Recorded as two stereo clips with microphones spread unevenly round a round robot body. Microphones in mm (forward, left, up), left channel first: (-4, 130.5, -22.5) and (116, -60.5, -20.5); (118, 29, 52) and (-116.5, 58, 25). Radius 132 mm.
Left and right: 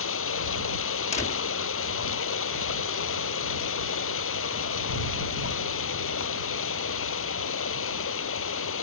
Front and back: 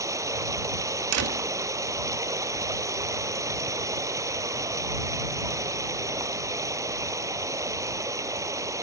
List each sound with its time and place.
0.0 s running water: 95° left
1.1 s a door slam: 170° right